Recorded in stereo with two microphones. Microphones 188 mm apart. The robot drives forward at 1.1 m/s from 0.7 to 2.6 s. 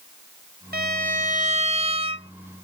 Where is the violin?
55° right (ahead or behind); by 2.3 s 30° right (ahead or behind).